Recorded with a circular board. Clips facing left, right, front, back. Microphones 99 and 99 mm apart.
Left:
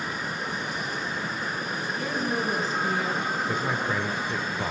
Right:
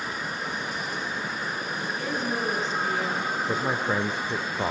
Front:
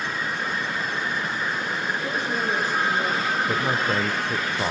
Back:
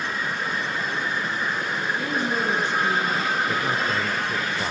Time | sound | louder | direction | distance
2.0 | a woman speaking | left 1 dB, back 2 dB | straight behind | 5 m
3.5 | a man speaking | right 1 dB, front 1 dB | 45° right | 0.9 m